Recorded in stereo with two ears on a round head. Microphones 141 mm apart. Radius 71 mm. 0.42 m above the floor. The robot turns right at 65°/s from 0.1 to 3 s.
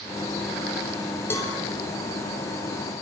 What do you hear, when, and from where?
1.3 s a cowbell: 15° left (ahead or behind), 2.5 m; by 1.6 s 30° left (ahead or behind), 2.5 m